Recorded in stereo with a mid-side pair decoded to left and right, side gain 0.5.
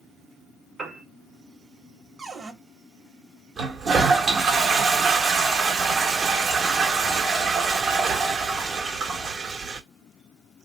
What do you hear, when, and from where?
0.8 s a piano: 45° right, 1.1 m
2.2 s a cupboard door: 30° right, 1.1 m
3.6 s a toilet flushing: 50° right, 1.0 m